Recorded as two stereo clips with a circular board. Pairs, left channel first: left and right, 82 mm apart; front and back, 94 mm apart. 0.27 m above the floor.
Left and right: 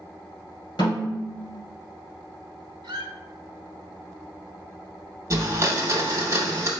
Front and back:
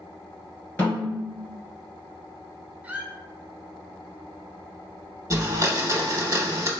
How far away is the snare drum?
About 1.8 m.